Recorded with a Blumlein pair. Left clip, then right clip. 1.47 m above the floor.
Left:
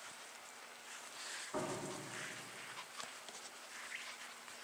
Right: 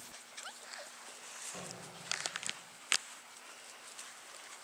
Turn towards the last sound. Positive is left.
turn(degrees=60)